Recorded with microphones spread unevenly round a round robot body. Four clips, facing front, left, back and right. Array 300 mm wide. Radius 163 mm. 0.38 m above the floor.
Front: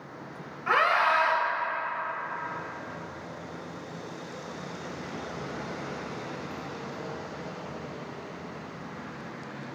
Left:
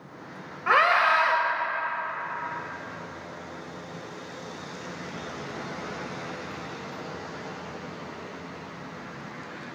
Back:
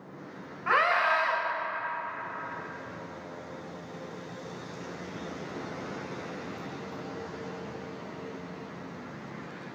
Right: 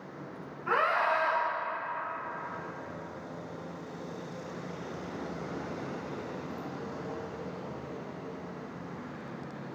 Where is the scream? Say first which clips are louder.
Left 7 dB, front 1 dB; 95° left, 2 m.